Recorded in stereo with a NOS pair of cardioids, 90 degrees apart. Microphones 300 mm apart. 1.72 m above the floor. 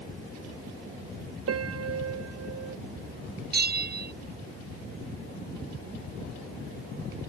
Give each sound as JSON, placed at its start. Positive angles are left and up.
{"t": 1.5, "sound": "a piano", "azimuth_deg": -55}
{"t": 3.5, "sound": "a bell", "azimuth_deg": -35}